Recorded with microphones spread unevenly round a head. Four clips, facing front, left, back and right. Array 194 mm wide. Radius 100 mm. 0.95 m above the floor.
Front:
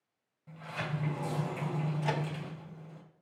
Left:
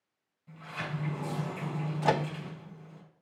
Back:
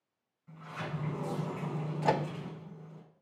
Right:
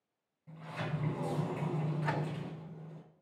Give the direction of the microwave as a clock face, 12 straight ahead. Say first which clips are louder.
Left 12 dB, back 7 dB; 8 o'clock.